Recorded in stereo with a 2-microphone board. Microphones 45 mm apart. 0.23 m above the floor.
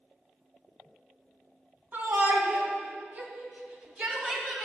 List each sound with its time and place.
1.9 s a shout: 40° right (ahead or behind), 2 m; by 4.6 s 15° right (ahead or behind), 1.8 m